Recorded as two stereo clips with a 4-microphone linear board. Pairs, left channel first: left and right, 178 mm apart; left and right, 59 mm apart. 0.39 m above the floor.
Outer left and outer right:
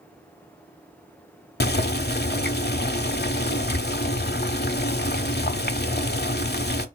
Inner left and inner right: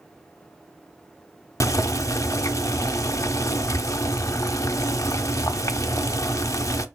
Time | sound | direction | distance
1.6 | boiling | 60° left (ahead or behind) | 0.6 m